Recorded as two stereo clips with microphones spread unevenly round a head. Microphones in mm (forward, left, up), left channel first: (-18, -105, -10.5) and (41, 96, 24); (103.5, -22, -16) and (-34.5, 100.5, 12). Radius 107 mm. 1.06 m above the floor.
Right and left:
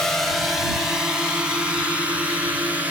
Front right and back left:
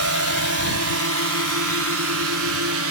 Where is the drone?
165° left; by 2.9 s 155° left.